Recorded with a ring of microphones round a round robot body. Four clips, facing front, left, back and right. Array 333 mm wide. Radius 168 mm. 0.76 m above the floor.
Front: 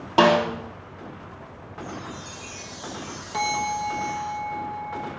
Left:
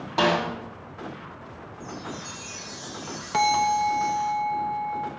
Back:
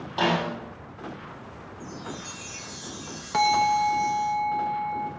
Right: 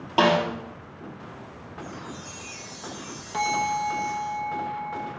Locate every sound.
0.2 s a snare drum: 15° right, 4 m
1.8 s a chime: 145° left, 2.5 m
3.3 s a bell: 130° left, 1.1 m